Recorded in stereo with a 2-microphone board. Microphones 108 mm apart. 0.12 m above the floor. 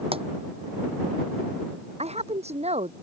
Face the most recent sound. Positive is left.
turn(degrees=-75)  # may be behind; listen again after turning